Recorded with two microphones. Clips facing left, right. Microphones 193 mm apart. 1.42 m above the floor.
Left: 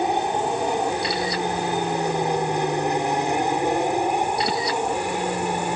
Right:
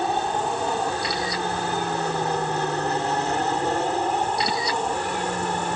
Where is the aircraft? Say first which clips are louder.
Left 2 dB; 15° left (ahead or behind); by 5.8 s 10° left (ahead or behind).